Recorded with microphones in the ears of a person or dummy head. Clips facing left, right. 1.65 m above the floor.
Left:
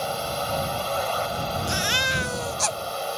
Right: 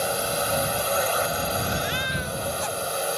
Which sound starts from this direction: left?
A baby crying, at 1.7 s.